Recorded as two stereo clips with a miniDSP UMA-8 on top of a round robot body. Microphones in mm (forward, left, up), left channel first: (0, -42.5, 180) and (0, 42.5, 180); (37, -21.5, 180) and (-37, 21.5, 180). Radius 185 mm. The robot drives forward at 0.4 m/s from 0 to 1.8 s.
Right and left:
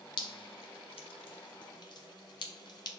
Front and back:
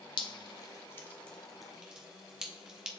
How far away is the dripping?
About 0.6 m.